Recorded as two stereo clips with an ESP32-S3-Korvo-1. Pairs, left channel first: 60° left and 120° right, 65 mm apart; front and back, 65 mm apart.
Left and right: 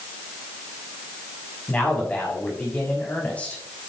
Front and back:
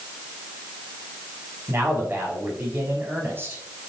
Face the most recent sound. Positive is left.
turn(degrees=130)